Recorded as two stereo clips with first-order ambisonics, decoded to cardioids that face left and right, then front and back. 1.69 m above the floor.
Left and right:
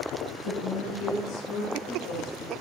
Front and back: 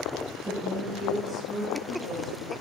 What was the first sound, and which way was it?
A woman speaking, 110° left.